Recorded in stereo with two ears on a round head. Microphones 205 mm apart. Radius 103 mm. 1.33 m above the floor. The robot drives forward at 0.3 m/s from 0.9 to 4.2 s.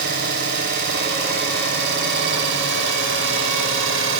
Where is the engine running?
45° right (ahead or behind), 3.5 m; by 4.2 s 60° right (ahead or behind), 3 m.